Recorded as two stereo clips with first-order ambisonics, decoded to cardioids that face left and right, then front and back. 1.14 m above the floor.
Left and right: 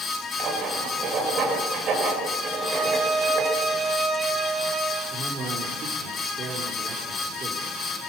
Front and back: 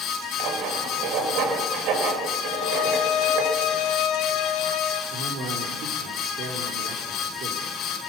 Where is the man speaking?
150° right, 4 m.